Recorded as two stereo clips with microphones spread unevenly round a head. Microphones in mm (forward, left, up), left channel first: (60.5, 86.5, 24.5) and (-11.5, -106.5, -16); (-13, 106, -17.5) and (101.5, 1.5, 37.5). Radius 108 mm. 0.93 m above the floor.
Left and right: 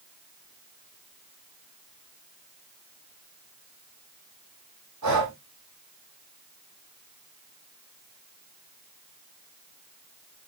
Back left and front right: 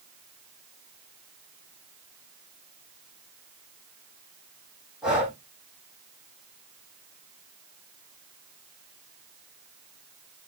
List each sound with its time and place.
5.0 s breathing: 125° right, 5.5 m